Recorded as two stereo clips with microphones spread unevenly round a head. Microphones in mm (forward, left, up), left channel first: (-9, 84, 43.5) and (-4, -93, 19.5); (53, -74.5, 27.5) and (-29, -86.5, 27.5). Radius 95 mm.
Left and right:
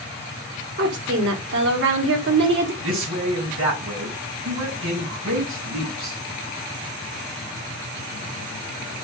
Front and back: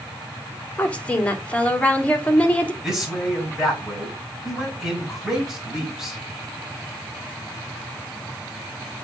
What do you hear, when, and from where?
0.8 s a woman speaking: 65° right, 2.5 m
2.8 s a man speaking: 85° right, 6 m